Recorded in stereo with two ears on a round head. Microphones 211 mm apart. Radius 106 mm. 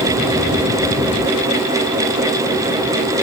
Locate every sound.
Only background noise.